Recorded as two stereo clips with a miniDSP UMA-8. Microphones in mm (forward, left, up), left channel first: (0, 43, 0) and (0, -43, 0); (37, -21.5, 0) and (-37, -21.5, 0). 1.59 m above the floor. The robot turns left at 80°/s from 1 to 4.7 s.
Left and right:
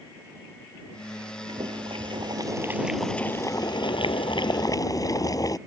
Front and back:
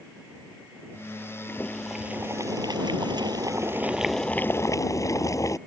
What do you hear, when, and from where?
1.5 s boiling: 60° right; by 5.6 s 40° left